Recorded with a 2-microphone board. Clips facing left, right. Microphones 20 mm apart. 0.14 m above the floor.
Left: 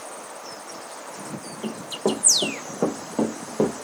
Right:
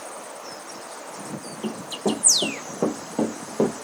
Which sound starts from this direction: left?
Running footsteps, at 1.6 s.